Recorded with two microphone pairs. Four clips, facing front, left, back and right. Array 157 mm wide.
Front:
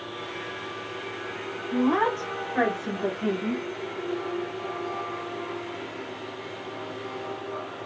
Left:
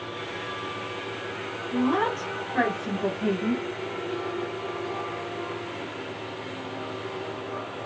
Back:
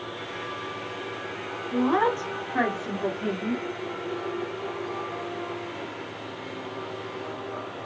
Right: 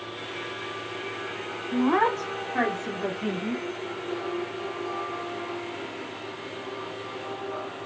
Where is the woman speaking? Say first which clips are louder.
Right 2 dB, even; 110° right, 1.3 m; by 3.6 s 100° left, 1.4 m.